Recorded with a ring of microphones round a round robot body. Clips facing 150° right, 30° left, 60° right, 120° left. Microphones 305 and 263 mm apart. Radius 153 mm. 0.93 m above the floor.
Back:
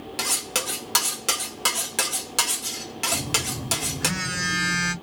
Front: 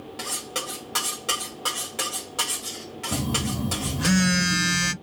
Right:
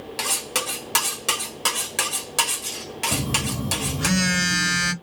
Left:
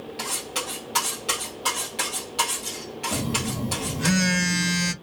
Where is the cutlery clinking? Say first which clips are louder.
Back 2 dB, right 2 dB; 105° right, 1.9 m.